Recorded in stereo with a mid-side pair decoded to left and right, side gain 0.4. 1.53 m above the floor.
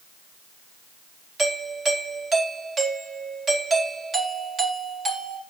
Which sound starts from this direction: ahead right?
A doorbell, at 1.4 s.